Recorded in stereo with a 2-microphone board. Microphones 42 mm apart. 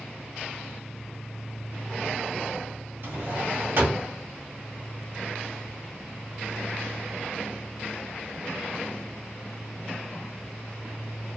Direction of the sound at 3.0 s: 70° right (ahead or behind).